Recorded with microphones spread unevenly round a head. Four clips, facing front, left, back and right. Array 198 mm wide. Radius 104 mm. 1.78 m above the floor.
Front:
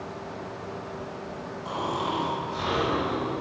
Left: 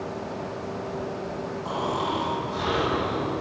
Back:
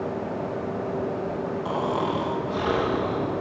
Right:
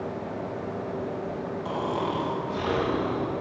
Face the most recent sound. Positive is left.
turn(degrees=-165)